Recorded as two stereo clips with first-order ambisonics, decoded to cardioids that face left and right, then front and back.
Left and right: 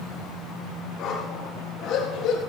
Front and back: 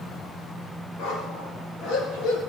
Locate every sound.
1.0 s a dog barking: 40° left, 5 m; by 2.4 s 45° left, 4.5 m